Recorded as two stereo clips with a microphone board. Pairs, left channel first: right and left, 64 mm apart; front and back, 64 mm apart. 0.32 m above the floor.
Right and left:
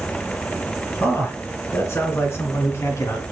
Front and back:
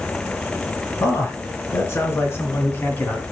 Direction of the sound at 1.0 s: 40° right.